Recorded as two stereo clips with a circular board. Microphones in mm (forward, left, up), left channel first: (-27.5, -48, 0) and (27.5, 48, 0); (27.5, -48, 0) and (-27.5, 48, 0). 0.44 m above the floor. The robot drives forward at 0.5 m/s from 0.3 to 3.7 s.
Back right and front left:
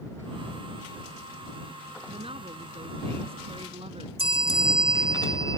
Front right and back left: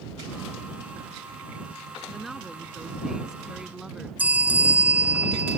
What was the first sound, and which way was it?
A woman speaking, 30° left.